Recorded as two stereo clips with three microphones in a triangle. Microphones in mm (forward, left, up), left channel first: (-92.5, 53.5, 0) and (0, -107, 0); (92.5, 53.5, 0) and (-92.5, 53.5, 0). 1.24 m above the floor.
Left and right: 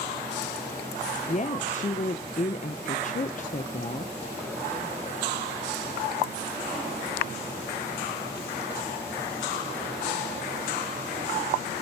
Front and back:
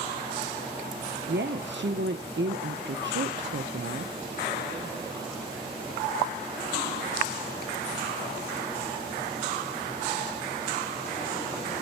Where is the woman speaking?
170° left, 0.8 m.